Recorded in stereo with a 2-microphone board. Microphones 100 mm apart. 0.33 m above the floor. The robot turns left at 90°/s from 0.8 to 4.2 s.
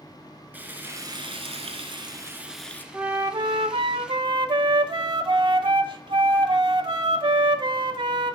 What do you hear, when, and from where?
0.5 s frying: 20° right, 1.2 m; by 2.8 s 155° left, 1.2 m
2.9 s a flute: 15° right, 0.5 m; by 8.3 s 125° right, 0.5 m